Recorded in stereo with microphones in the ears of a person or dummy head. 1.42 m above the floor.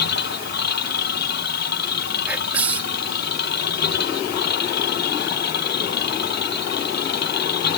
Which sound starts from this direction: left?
A machine running, at 0.0 s.